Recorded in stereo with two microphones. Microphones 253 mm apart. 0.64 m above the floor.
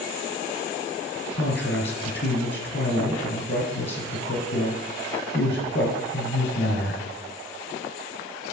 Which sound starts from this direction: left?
A man speaking, at 1.3 s.